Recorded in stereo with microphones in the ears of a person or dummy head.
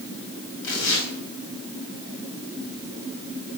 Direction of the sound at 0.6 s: 75° left (ahead or behind).